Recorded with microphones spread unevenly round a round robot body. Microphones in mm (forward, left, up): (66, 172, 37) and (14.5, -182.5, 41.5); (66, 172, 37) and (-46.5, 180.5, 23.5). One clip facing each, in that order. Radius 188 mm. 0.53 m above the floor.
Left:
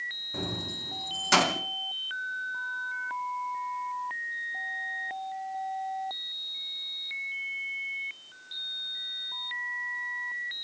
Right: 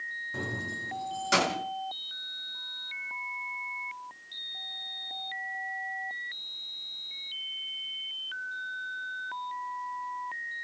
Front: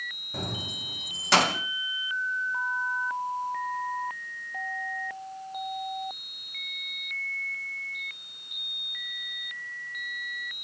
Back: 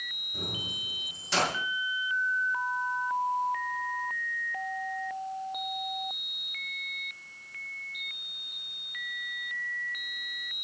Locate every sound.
0.3 s keys jangling: 10° right, 2.5 m; by 1.6 s 10° left, 3.5 m